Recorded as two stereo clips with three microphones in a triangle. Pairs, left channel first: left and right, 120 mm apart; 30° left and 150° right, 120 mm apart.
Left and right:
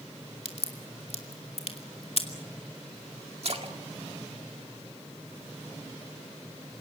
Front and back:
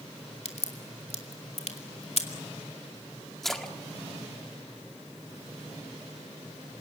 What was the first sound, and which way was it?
A crack, 55° left.